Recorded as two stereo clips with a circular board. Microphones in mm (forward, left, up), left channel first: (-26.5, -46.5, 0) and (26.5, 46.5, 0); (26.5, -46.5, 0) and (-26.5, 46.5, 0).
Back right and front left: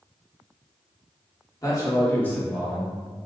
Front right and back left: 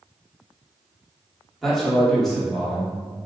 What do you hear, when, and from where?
1.6 s a man speaking: 145° right, 1.5 m; by 3.3 s 25° left, 1.2 m